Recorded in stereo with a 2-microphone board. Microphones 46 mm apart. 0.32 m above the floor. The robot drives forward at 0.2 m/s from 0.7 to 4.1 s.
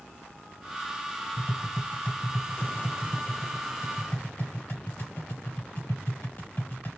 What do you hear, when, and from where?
1.4 s tapping: 50° left (ahead or behind), 2.5 m